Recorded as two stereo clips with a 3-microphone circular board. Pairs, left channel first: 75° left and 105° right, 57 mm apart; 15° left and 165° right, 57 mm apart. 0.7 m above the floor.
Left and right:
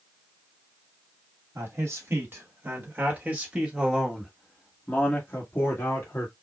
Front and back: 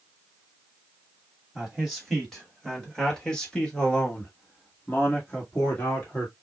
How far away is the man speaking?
About 2 m.